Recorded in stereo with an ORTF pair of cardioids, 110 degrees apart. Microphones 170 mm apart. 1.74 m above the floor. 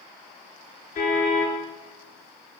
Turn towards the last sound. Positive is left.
turn(degrees=55)